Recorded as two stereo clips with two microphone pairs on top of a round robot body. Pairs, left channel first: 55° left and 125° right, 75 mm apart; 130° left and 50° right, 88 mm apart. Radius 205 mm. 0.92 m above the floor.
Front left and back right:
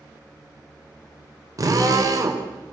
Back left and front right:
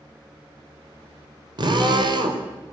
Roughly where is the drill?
Right.